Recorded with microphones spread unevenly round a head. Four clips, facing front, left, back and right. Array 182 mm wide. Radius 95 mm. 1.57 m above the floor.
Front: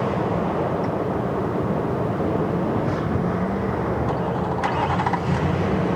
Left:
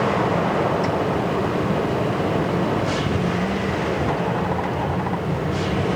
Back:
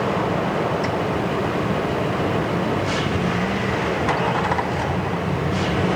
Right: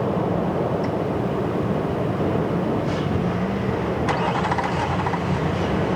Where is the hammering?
I don't hear hammering.